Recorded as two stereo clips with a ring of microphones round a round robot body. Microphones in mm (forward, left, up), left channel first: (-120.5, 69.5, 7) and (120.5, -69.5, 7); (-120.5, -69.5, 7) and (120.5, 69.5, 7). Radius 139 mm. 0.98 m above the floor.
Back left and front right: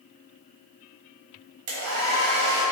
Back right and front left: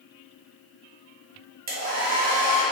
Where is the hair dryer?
15° right, 1.1 m.